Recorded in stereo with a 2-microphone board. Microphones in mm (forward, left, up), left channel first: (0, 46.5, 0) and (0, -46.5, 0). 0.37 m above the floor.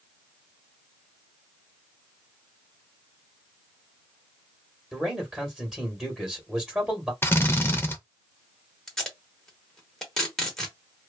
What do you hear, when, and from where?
4.9 s a man speaking: centre (ahead or behind), 1.4 m
7.2 s a drill: 25° left (ahead or behind), 0.5 m
8.9 s tape being pulled: 5° left (ahead or behind), 1.0 m